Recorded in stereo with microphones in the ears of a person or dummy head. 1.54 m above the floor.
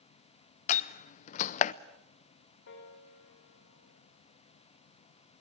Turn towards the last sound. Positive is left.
turn(degrees=65)  # may be behind; listen again after turning